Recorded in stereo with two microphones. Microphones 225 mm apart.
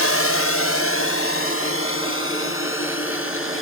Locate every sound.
0.0 s a drone: 80° left; by 3.6 s 65° left (ahead or behind)